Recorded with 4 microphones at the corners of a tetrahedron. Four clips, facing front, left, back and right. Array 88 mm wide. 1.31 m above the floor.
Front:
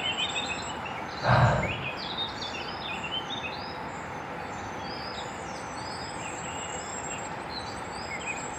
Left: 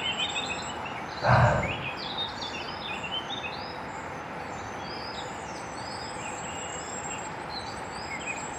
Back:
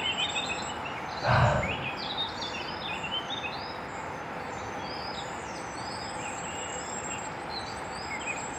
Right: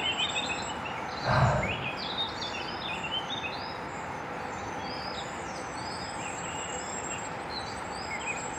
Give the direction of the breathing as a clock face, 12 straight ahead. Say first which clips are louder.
Left 4 dB, front 1 dB; 9 o'clock.